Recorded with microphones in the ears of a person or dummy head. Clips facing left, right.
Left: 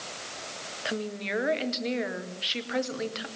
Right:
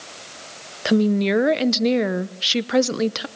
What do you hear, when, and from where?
0.8 s a woman speaking: 65° right (ahead or behind), 0.9 m